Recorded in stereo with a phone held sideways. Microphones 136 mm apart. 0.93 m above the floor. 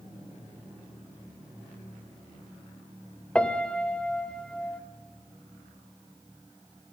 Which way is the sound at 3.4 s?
5° left (ahead or behind).